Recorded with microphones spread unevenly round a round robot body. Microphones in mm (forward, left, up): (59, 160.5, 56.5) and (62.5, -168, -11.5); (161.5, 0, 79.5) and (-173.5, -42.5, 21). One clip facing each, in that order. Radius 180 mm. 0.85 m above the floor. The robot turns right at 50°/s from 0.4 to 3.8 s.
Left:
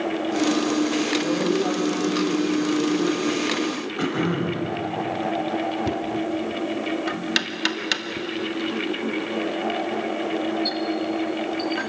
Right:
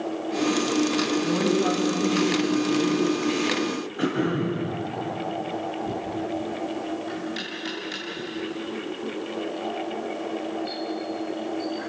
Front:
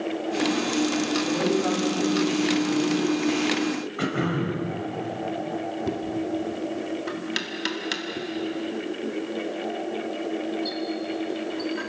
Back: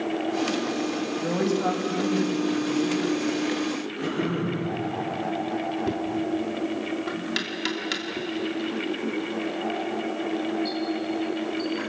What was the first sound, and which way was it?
A woman speaking, 160° right.